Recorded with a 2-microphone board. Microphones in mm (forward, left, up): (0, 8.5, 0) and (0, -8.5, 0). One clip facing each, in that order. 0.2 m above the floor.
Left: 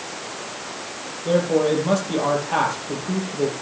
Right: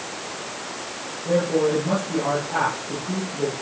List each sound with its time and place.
1.2 s a man speaking: 65° left (ahead or behind), 6.5 m